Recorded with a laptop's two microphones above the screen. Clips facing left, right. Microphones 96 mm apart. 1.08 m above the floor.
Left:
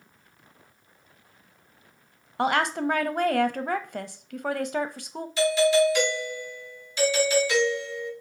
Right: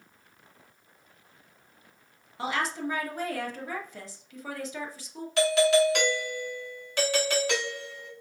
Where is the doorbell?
60° right (ahead or behind), 1.5 m.